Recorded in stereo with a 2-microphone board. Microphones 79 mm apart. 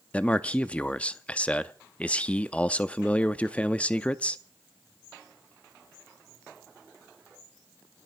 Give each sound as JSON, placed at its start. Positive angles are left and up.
{"t": 0.1, "sound": "a man speaking", "side_deg": 15, "distance_m": 0.5}